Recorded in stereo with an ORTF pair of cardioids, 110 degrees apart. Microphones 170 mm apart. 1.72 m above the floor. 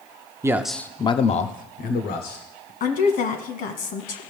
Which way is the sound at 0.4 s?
15° right.